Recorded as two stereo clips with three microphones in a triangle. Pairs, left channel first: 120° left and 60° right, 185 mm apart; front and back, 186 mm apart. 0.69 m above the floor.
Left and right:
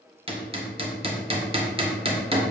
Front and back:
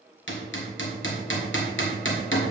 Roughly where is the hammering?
Ahead.